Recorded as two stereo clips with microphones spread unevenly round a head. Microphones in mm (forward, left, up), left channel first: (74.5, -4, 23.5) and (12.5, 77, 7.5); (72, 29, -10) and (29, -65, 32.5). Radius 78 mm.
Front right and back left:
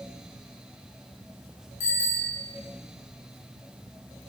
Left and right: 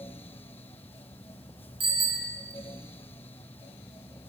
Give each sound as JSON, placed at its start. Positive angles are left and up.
{"t": 1.8, "sound": "a bicycle bell", "azimuth_deg": -80, "distance_m": 9.0}